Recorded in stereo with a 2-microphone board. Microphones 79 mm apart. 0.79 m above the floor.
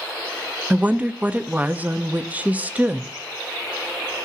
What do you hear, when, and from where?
0.7 s a woman speaking: 20° right (ahead or behind), 0.5 m